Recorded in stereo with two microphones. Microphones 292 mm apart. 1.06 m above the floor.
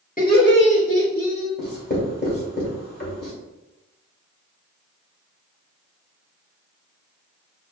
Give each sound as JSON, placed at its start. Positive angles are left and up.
{"t": 0.2, "sound": "laughter", "side_deg": 30, "distance_m": 1.4}
{"t": 1.6, "sound": "writing", "side_deg": 35, "distance_m": 1.7}